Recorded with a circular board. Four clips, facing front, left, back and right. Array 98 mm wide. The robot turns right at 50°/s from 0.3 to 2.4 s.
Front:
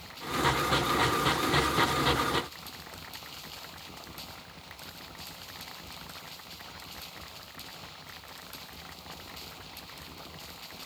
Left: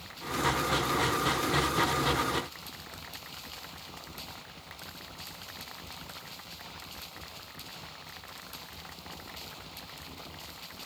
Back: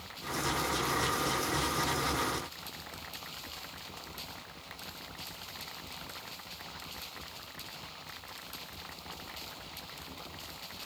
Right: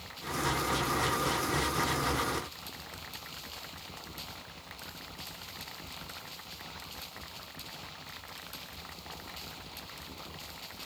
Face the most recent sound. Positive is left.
No sound to turn to.